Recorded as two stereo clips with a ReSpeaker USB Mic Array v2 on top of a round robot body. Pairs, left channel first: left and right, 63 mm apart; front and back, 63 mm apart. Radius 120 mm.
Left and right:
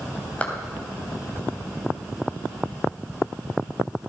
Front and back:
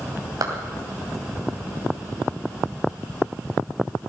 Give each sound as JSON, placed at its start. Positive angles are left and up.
{"t": 0.4, "sound": "a clap", "azimuth_deg": 160, "distance_m": 3.0}